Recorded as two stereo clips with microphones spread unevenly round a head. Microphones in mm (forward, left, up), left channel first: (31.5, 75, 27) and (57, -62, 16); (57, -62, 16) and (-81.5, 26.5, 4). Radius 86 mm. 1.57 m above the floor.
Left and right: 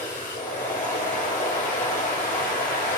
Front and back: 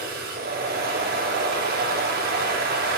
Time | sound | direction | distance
0.0 | a machine running | straight behind | 3 m